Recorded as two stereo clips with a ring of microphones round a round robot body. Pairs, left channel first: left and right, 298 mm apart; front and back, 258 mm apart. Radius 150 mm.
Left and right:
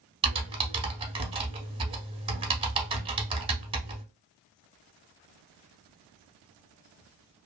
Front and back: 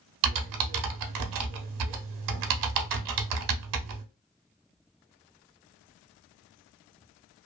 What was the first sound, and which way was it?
Typing on a keyboard, 165° right.